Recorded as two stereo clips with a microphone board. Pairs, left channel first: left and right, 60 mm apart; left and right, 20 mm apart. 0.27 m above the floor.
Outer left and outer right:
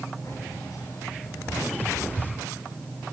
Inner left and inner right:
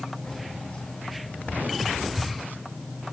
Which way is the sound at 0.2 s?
85° left.